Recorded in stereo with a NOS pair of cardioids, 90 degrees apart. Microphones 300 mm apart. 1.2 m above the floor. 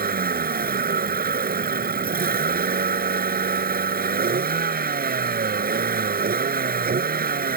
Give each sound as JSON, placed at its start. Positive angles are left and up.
{"t": 0.0, "sound": "a vehicle", "azimuth_deg": -30}